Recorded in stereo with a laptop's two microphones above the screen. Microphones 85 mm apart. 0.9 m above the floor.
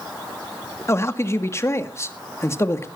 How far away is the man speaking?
About 1.7 m.